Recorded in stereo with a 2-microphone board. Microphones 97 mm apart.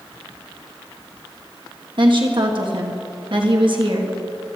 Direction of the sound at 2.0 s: 55° right (ahead or behind).